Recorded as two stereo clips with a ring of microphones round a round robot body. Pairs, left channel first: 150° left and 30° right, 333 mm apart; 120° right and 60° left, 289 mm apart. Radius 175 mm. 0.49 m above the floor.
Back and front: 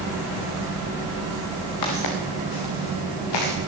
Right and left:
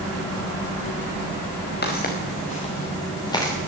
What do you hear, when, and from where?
1.8 s footsteps: 175° right, 3.5 m; by 3.5 s 160° left, 4 m